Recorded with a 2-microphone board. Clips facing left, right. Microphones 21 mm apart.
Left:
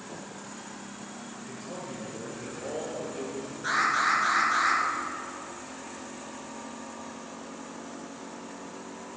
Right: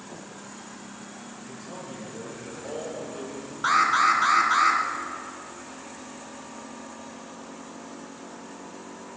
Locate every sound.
1.4 s a man speaking: 15° right (ahead or behind), 5 m
3.6 s an alarm: 65° right (ahead or behind), 2.5 m